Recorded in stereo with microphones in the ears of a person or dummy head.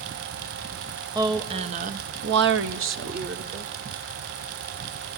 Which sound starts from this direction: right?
A woman speaking, at 1.1 s.